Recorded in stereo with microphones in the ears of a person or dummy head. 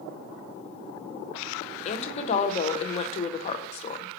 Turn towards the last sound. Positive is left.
turn(degrees=35)  # may be behind; listen again after turning